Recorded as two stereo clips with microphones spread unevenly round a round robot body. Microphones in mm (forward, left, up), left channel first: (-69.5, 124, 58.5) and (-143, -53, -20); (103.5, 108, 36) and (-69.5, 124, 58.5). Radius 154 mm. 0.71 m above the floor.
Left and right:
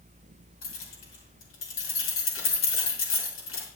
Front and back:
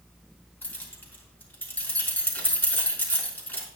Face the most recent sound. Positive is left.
turn(degrees=75)